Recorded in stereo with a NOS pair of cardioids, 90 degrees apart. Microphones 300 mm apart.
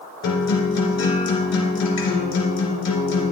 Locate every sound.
0.2 s a guitar: 65° left, 2.5 m